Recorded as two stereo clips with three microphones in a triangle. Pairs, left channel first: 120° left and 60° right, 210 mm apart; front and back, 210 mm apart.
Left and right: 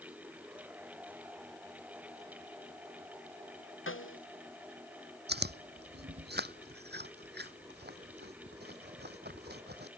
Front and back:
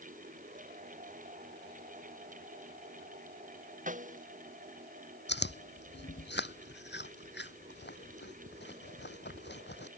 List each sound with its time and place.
3.9 s a snare drum: 130° left
5.3 s chewing: 30° right